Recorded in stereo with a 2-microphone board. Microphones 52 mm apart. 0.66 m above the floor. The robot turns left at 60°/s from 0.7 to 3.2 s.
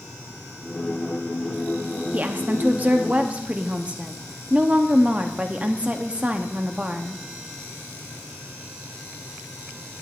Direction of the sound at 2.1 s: 70° right.